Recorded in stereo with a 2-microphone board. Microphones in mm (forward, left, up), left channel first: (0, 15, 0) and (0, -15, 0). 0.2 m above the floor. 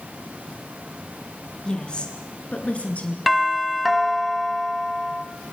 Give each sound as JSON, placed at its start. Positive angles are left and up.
{"t": 1.6, "sound": "a woman speaking", "side_deg": 25, "distance_m": 3.0}
{"t": 3.3, "sound": "a doorbell", "side_deg": -5, "distance_m": 1.5}